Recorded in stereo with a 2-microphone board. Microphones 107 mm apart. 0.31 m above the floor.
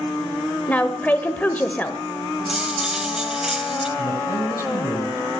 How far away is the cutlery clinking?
About 1.1 m.